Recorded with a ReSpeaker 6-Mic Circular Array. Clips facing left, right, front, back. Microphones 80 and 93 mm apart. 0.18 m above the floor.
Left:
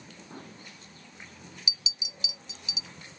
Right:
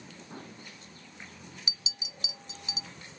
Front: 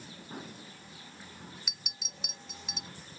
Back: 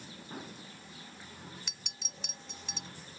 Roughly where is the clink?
Right.